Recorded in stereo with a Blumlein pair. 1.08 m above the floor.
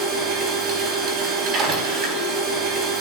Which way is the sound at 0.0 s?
30° right.